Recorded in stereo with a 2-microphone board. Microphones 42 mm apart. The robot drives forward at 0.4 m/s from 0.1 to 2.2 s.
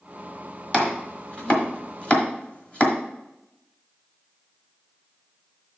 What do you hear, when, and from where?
0.7 s chopping: 25° left (ahead or behind), 1.4 m